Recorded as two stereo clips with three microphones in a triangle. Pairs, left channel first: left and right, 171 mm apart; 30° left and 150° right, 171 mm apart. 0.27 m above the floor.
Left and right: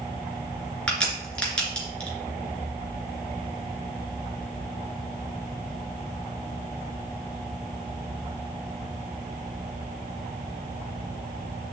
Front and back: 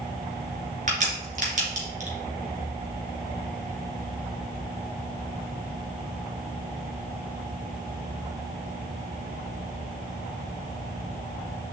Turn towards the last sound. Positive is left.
turn(degrees=175)